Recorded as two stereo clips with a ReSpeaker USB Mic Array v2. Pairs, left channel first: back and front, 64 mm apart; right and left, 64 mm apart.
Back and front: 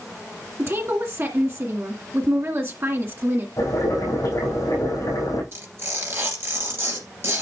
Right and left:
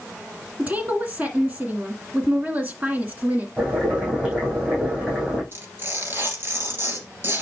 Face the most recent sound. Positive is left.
turn(degrees=40)